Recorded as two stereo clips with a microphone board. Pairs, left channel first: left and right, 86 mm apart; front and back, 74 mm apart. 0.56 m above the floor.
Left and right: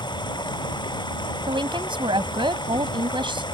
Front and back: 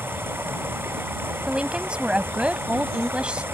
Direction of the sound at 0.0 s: 120° left.